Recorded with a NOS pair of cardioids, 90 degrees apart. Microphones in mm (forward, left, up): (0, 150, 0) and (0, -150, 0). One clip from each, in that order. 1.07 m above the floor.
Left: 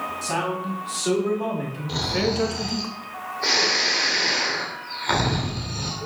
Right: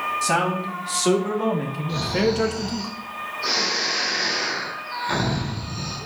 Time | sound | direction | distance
0.2 | a man speaking | 40° right | 3.5 m
1.9 | snoring | 45° left | 2.5 m